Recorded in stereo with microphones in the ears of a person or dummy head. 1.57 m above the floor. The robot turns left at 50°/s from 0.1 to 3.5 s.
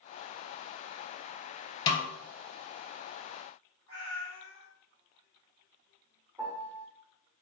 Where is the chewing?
I don't hear chewing.